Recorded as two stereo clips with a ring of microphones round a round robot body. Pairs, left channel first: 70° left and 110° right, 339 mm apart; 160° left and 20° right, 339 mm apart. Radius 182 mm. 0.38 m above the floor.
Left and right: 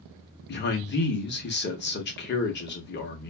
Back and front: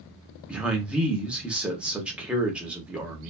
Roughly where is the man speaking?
Ahead left.